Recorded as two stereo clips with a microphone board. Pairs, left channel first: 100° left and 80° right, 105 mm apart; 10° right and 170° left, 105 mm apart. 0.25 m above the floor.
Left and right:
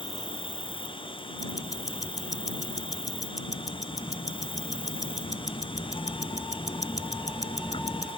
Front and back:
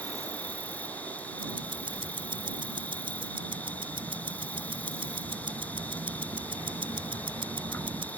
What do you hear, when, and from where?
0.0 s an insect: 65° left
1.4 s ticking: 150° left